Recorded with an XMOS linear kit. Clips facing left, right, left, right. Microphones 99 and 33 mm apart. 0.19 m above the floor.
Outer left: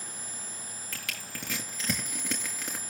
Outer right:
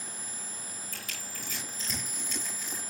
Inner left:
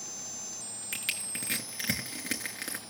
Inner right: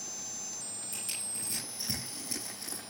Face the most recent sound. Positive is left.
turn(degrees=70)  # may be behind; listen again after turning